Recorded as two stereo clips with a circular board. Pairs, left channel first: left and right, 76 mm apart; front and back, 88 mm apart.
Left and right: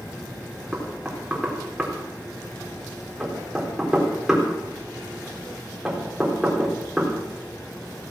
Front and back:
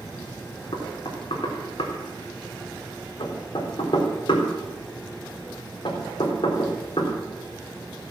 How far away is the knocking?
About 3.5 m.